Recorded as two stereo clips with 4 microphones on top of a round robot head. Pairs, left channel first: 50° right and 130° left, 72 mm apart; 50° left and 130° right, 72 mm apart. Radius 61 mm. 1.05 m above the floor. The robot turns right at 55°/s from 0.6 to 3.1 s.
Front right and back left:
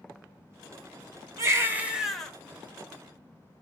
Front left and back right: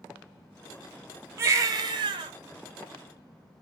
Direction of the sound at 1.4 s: 175° left.